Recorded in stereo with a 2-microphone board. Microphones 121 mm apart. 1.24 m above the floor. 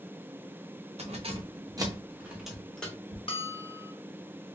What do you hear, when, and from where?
1.0 s keys jangling: 60° right (ahead or behind), 0.8 m; by 3.2 s 10° left (ahead or behind), 1.3 m
3.3 s a bell: 50° left (ahead or behind), 0.5 m